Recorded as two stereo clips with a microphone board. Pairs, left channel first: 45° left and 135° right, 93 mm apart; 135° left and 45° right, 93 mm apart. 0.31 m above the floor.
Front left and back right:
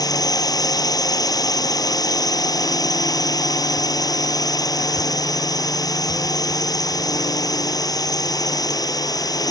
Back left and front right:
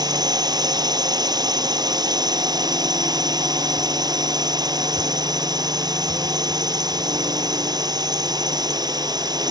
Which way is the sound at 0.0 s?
Straight ahead.